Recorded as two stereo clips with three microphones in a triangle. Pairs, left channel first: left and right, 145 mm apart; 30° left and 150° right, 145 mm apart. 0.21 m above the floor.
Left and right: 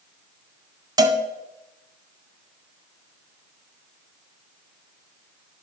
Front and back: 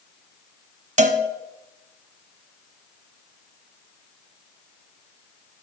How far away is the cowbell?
About 0.7 m.